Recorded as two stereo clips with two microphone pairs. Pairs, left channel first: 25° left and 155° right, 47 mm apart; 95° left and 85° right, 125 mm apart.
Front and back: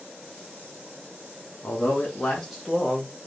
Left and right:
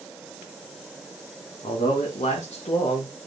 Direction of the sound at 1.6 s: 70° left.